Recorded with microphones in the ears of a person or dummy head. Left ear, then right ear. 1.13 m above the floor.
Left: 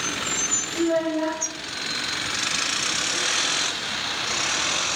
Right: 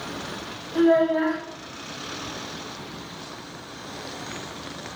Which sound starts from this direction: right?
A child speaking, at 0.8 s.